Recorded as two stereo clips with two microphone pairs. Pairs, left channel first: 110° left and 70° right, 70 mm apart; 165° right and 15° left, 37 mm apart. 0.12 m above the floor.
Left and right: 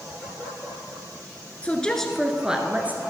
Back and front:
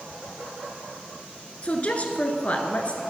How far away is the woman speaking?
About 1.6 m.